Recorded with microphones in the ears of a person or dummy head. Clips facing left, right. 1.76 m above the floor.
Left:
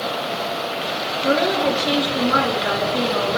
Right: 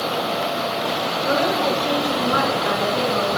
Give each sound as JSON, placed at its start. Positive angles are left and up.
{"t": 1.2, "sound": "a woman speaking", "side_deg": 40, "distance_m": 3.5}